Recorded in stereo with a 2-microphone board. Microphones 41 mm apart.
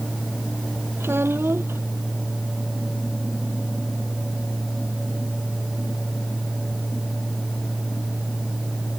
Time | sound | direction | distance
1.0 | a child speaking | 85° right | ?